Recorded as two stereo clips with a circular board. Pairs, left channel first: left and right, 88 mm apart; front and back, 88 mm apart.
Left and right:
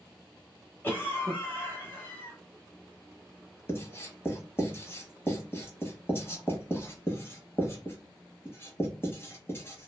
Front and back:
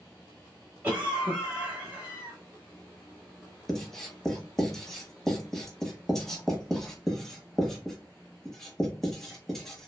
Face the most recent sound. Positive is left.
turn(degrees=80)